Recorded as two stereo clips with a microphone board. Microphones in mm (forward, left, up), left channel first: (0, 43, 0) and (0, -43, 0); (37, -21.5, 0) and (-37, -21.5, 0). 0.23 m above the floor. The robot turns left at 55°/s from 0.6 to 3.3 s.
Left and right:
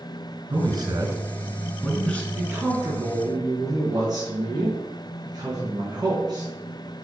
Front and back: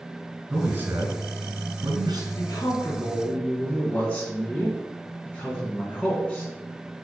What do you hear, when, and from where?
0.5 s a man speaking: 115° right, 2.5 m; by 2.2 s 155° left, 2.5 m
2.4 s a man speaking: 20° right, 3 m; by 6.5 s 70° right, 3 m